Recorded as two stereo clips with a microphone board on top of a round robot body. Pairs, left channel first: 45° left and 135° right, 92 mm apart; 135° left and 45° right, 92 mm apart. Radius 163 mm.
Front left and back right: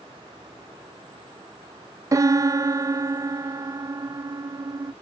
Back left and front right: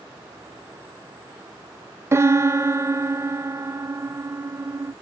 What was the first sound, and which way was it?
A piano, 95° right.